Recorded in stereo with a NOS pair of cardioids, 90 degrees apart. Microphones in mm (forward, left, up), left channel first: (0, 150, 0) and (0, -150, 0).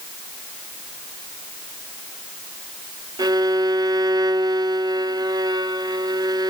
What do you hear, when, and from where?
3.2 s a violin: 15° right, 1.0 m